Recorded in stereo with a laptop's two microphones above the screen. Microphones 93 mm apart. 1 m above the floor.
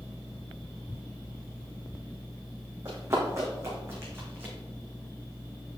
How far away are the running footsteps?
About 3 m.